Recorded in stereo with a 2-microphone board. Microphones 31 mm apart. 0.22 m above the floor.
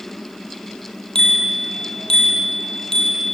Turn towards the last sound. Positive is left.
turn(degrees=20)  # may be behind; listen again after turning